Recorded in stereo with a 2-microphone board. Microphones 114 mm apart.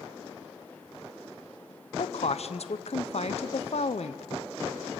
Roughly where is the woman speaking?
Left.